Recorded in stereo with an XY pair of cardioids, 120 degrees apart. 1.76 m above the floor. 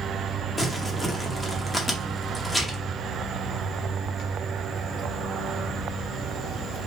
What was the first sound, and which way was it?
Crumpling, 5° left.